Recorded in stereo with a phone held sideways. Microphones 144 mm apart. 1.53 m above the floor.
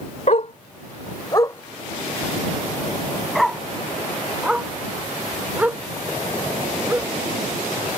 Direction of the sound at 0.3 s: 55° left (ahead or behind).